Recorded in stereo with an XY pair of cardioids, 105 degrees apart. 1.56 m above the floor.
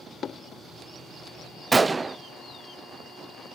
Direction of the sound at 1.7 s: 25° right.